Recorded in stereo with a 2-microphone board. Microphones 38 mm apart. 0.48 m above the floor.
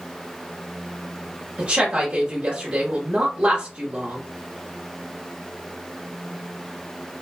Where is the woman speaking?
35° right (ahead or behind), 1.3 m.